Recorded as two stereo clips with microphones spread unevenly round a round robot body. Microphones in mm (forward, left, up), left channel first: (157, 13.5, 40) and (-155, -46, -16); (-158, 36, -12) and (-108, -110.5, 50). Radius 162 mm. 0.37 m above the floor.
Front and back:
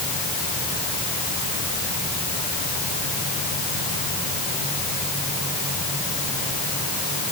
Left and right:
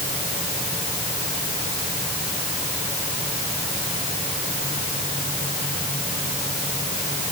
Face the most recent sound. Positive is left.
No sound to turn to.